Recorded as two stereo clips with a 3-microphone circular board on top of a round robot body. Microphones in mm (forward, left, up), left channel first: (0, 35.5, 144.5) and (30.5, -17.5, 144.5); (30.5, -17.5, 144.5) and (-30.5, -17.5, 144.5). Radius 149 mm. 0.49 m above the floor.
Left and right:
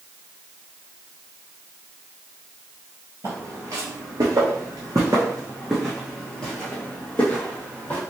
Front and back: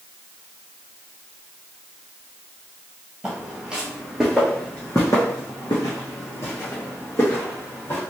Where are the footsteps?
105° right, 1.1 m; by 8.0 s 55° left, 1.6 m.